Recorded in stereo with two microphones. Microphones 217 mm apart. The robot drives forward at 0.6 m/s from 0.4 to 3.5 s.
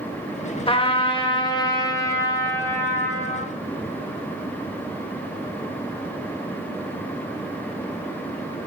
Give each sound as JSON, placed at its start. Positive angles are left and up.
{"t": 0.7, "sound": "a trumpet", "side_deg": 25, "distance_m": 0.7}